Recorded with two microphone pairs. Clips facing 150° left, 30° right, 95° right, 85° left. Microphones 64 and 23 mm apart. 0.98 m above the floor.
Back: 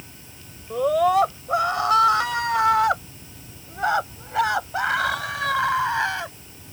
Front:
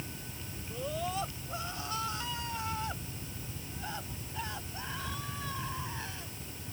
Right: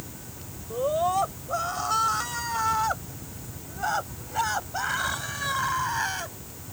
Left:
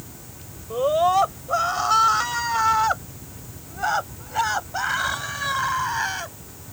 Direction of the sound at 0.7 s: 130° left.